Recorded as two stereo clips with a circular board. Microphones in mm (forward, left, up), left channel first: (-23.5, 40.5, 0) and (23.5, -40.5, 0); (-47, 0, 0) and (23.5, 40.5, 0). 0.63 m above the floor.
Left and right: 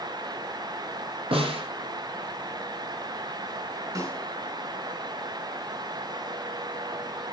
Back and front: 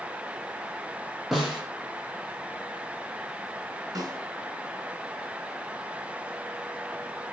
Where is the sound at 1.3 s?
60° right, 6.5 m.